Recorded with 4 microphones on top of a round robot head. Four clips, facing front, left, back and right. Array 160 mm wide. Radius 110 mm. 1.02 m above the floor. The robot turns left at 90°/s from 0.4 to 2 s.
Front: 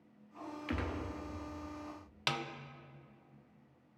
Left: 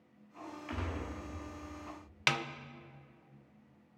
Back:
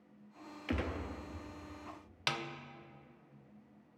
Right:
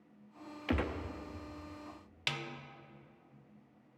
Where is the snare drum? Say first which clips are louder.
Left 8 dB, front 1 dB; 85° left, 0.7 m.